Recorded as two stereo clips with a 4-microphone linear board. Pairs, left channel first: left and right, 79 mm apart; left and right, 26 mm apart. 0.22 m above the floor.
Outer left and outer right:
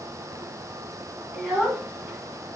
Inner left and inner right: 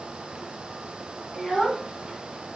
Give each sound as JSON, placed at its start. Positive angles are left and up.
{"t": 1.3, "sound": "a child speaking", "side_deg": -10, "distance_m": 1.2}